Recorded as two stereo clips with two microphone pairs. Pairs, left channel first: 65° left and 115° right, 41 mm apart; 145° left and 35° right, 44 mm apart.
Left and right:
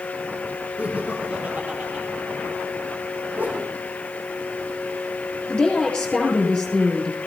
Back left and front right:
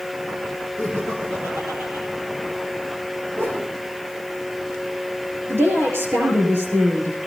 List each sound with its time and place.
0.8 s laughter: 55° right, 7 m; by 2.0 s 45° right, 8 m
3.4 s a whoosh: 70° right, 4 m
5.5 s a woman speaking: 5° right, 8.5 m